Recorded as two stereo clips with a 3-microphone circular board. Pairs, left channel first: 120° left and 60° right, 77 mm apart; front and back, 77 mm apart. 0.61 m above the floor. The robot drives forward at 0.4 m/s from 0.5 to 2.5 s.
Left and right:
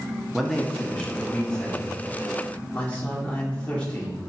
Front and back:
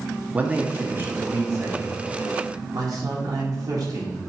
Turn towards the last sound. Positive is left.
turn(degrees=-170)